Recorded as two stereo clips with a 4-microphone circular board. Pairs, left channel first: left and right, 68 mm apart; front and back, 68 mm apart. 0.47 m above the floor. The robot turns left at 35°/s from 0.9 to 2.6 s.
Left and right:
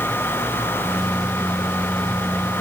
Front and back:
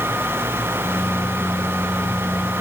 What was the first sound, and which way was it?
Only background noise.